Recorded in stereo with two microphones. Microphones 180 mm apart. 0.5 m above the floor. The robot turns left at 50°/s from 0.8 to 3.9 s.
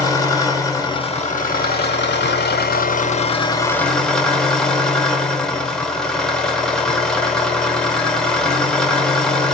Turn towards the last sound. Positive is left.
turn(degrees=5)